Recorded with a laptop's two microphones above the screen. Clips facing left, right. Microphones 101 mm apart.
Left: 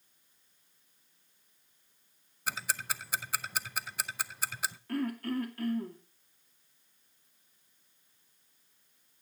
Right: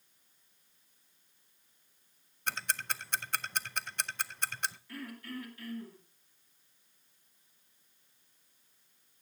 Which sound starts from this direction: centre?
Ticking, at 2.5 s.